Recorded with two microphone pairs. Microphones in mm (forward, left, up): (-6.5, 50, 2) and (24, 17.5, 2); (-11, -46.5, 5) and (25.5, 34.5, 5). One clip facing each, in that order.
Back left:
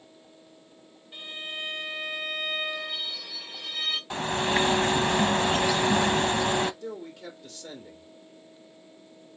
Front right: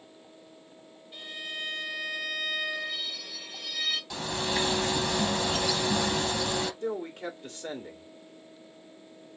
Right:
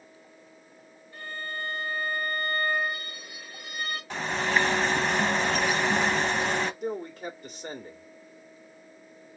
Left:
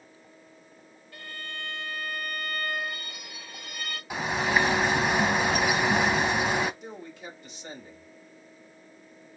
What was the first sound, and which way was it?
A violin, 70° left.